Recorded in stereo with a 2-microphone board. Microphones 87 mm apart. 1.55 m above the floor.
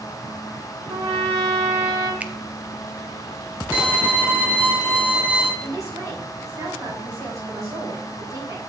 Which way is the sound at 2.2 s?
15° right (ahead or behind).